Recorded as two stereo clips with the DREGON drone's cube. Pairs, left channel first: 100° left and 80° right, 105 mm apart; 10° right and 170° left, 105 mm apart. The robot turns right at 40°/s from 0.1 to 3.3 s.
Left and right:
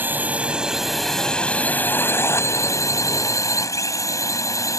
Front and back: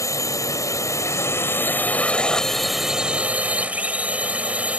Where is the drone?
25° right; by 4.8 s 105° left.